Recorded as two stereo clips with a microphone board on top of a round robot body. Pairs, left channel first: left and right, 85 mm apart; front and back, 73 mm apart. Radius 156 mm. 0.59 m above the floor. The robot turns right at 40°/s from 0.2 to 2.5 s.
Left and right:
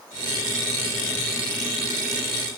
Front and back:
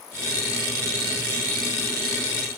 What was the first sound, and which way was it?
Only background noise.